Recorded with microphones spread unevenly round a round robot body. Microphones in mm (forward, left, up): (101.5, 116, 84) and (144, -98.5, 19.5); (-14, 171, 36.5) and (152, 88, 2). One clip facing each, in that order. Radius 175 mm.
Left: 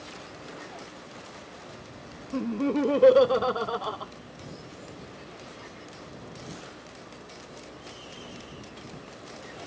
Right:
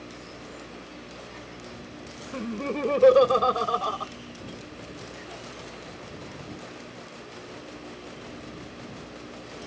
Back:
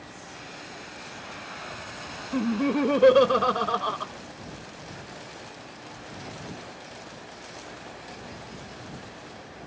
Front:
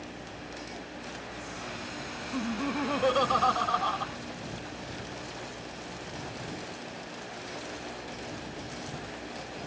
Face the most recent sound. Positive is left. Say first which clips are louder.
# left 5 dB, back 8 dB
turn(degrees=-165)